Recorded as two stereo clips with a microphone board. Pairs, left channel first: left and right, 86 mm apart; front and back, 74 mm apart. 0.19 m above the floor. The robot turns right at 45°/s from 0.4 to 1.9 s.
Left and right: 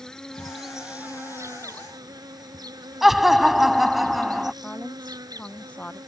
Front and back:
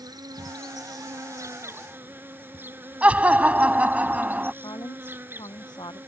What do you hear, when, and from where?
0.0 s an insect: 170° left; by 6.1 s 120° right
3.0 s laughter: 175° right
4.6 s a woman speaking: 15° left